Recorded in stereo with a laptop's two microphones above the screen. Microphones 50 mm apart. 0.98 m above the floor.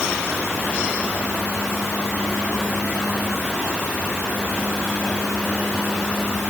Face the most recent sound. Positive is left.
No sound to turn to.